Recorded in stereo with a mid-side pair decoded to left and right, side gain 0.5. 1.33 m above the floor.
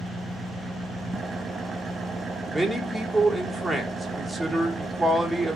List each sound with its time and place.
0.0 s an engine running: 40° right, 1.3 m
2.5 s a man speaking: 20° right, 3.5 m